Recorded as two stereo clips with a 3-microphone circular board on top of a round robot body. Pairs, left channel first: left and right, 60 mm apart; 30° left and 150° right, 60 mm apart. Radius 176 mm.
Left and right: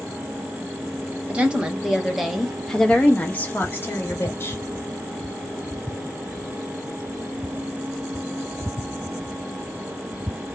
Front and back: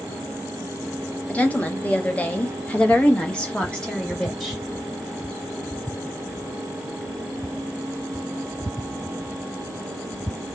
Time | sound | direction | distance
1.3 | a woman speaking | 30° right | 1.3 m